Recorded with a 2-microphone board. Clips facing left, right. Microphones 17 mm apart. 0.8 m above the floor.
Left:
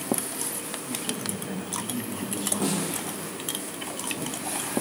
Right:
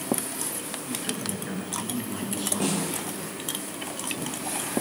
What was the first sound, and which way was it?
A man speaking, 30° right (ahead or behind).